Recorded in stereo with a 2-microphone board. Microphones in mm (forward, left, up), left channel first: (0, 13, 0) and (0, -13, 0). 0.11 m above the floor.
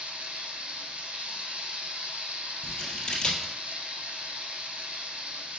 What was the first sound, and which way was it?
Running water, 65° right (ahead or behind).